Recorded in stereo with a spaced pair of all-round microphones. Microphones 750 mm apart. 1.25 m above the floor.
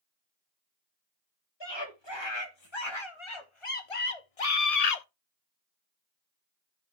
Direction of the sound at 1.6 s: 35° left (ahead or behind).